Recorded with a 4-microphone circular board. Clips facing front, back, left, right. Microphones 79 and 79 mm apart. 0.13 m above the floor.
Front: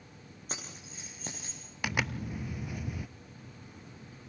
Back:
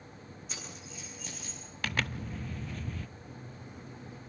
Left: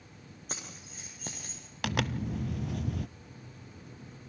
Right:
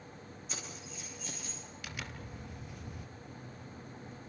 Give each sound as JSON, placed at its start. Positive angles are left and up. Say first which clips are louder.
{"t": 0.5, "sound": "keys jangling", "louder": "front 3 dB, left 2 dB", "azimuth_deg": 45, "distance_m": 7.0}
{"t": 1.8, "sound": "a zipper", "louder": "front 1 dB, left 14 dB", "azimuth_deg": 75, "distance_m": 0.7}
{"t": 3.2, "sound": "a microwave", "louder": "back 4 dB, right 2 dB", "azimuth_deg": 180, "distance_m": 5.0}